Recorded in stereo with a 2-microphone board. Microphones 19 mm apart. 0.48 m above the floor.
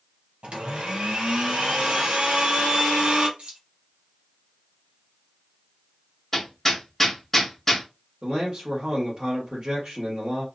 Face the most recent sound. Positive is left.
turn(degrees=-35)  # may be behind; listen again after turning